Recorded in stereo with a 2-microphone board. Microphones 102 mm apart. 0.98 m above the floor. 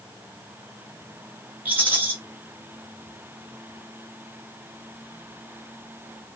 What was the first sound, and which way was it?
A rattle, 20° right (ahead or behind).